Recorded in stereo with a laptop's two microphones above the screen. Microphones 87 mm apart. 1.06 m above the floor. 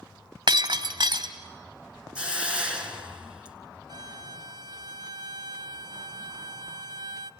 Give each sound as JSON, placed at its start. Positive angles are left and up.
{"t": 0.5, "sound": "breaking glass", "side_deg": -60, "distance_m": 2.0}
{"t": 2.1, "sound": "a hiss", "side_deg": -10, "distance_m": 2.0}
{"t": 3.9, "sound": "a violin", "side_deg": -55, "distance_m": 0.9}